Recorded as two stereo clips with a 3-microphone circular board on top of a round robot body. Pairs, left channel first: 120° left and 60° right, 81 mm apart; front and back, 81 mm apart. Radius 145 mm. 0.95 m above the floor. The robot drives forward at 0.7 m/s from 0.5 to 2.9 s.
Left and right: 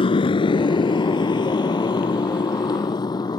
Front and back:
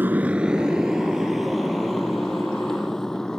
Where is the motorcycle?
110° left; by 3.4 s 85° left.